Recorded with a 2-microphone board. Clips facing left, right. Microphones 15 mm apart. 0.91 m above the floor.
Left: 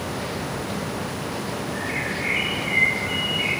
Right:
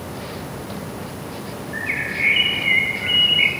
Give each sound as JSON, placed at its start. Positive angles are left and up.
{"t": 1.7, "sound": "a bird", "side_deg": -80, "distance_m": 5.0}